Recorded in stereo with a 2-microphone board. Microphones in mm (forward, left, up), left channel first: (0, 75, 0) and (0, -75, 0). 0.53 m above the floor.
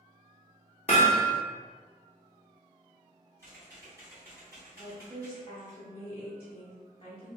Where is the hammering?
45° left (ahead or behind), 0.7 m.